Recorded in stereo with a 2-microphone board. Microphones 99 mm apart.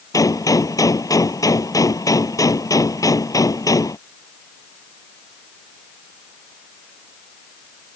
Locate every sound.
0.1 s a gunshot: 35° left (ahead or behind)